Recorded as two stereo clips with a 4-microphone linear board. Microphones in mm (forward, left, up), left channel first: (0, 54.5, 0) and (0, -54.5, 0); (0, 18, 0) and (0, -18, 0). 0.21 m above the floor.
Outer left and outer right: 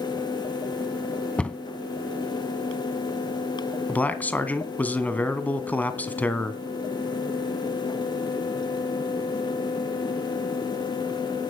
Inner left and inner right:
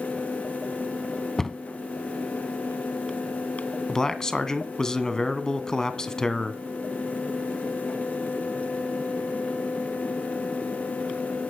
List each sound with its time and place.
1.4 s a cupboard door: 10° left (ahead or behind), 0.7 m
3.9 s a man speaking: 15° left (ahead or behind), 1.7 m